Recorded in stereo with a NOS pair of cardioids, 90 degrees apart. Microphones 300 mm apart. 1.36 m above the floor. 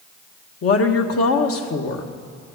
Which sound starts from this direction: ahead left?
A woman speaking, at 0.6 s.